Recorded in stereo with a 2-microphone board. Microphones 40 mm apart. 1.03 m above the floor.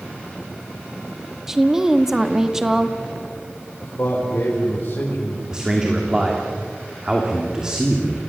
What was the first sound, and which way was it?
A woman speaking, 10° right (ahead or behind).